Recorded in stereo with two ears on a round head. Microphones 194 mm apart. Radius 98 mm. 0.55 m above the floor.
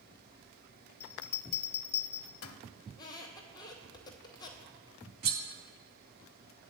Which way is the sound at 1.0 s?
70° left (ahead or behind).